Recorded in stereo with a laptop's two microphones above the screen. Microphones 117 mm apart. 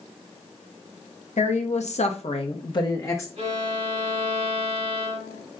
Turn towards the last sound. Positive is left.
turn(degrees=-60)  # may be behind; listen again after turning